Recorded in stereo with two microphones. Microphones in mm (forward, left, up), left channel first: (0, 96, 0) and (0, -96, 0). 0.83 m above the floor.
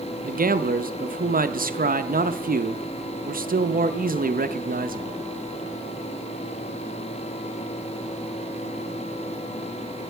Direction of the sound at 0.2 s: 50° right (ahead or behind).